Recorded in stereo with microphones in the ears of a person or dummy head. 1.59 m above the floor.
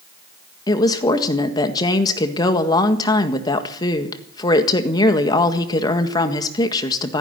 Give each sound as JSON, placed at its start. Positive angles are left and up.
{"t": 0.7, "sound": "a woman speaking", "side_deg": 20, "distance_m": 1.6}